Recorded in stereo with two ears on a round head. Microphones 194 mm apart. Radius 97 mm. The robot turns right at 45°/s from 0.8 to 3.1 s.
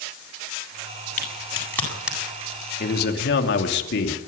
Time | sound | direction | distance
1.2 | a crack | 35° left (ahead or behind) | 8 m
2.8 | a man speaking | 40° left (ahead or behind) | 3 m